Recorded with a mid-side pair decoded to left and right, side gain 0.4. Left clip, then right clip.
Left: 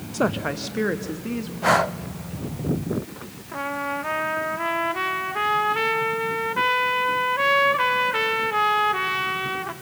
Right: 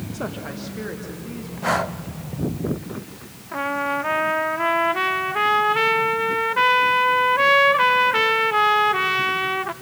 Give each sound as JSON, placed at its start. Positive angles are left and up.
{"t": 0.1, "sound": "a woman speaking", "azimuth_deg": 60, "distance_m": 1.0}
{"t": 1.6, "sound": "breathing", "azimuth_deg": 25, "distance_m": 0.5}
{"t": 3.5, "sound": "a trumpet", "azimuth_deg": -30, "distance_m": 1.1}